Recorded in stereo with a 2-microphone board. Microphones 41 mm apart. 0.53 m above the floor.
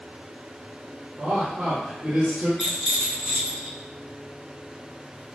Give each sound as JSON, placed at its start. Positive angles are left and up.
{"t": 1.2, "sound": "a man speaking", "side_deg": -55, "distance_m": 1.4}
{"t": 2.6, "sound": "a rattle", "side_deg": -15, "distance_m": 0.9}